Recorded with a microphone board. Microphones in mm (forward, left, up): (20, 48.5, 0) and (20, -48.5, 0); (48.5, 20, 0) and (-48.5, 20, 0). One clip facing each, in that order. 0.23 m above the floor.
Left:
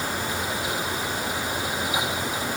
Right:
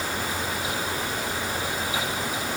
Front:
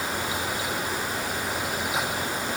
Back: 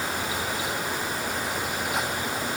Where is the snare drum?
I don't hear a snare drum.